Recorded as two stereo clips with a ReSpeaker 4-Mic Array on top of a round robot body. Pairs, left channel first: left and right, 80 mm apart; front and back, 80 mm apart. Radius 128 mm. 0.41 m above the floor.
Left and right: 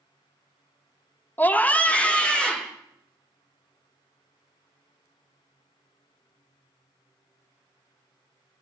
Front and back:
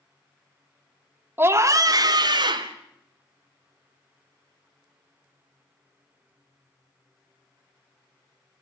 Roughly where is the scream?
Behind left.